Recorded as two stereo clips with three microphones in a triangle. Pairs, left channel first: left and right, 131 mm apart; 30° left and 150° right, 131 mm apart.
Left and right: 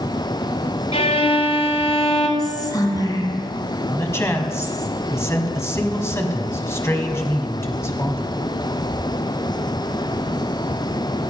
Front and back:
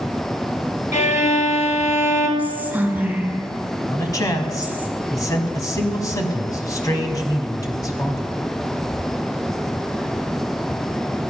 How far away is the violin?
About 1.1 m.